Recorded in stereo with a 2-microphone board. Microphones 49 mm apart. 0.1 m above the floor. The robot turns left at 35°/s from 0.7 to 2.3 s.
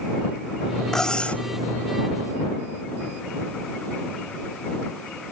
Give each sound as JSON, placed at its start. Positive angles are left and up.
{"t": 0.9, "sound": "cutlery clinking", "side_deg": 10}